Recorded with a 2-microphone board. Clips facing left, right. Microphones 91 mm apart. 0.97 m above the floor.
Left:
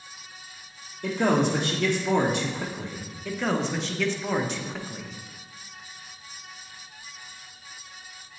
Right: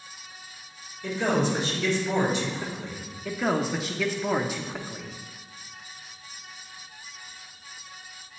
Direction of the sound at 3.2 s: 5° right (ahead or behind).